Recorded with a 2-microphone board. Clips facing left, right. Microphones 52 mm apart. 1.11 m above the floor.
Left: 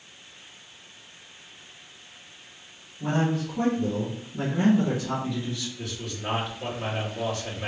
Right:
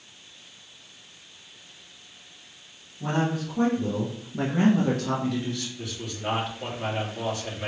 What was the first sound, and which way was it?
A man speaking, 5° right (ahead or behind).